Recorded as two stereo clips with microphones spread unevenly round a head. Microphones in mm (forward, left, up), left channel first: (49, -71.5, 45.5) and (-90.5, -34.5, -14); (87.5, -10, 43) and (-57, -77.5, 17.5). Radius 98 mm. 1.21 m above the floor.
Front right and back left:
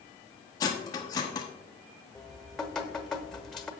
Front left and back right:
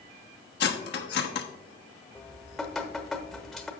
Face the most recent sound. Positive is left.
turn(degrees=-45)